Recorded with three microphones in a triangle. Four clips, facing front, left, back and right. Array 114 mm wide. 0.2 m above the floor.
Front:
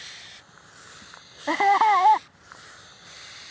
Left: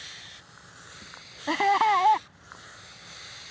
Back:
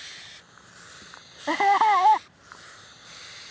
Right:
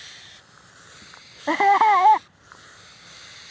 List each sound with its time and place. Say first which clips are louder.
1.5 s laughter: right 6 dB, front 1 dB; 85° right